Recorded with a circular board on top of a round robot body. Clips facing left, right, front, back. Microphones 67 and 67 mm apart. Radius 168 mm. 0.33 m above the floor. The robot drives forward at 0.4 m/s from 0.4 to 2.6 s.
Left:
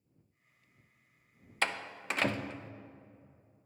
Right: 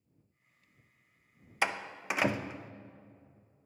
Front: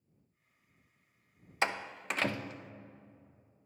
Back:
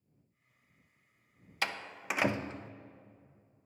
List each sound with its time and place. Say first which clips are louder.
1.6 s a door slam: right 2 dB, front 3 dB; 25° right, 0.5 m; by 2.7 s 165° right, 0.5 m